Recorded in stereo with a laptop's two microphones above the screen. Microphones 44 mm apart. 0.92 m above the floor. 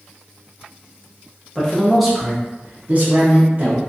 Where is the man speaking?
10° left (ahead or behind), 0.9 m; by 3.8 s 50° right (ahead or behind), 1.2 m.